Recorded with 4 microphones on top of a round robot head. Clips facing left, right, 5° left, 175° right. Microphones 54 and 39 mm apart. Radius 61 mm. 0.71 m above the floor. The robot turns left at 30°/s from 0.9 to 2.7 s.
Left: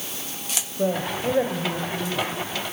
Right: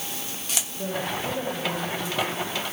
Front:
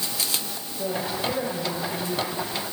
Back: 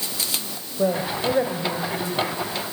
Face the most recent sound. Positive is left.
turn(degrees=90)